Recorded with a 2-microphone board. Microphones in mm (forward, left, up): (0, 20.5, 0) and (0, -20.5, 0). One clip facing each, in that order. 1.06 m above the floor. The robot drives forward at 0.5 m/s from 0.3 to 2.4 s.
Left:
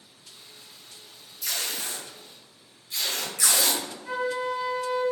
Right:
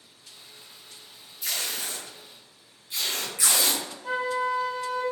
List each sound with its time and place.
1.4 s tape being pulled: 25° right (ahead or behind), 0.8 m; by 3.8 s 20° right (ahead or behind), 1.1 m
4.0 s a flute: 75° right (ahead or behind), 1.6 m